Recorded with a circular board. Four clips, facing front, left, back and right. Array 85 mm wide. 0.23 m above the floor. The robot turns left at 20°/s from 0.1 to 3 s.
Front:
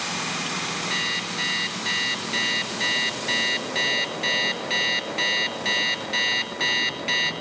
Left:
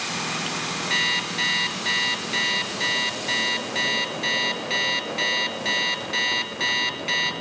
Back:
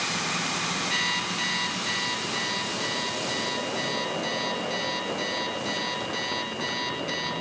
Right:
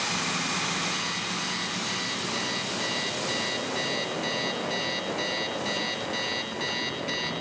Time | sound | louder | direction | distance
0.9 | an alarm clock | left 5 dB, even | 85° left | 2 m